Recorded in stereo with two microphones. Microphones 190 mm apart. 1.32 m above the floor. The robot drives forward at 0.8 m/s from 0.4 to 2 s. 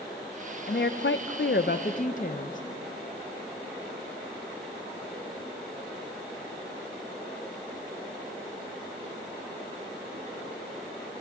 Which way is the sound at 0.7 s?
55° left (ahead or behind).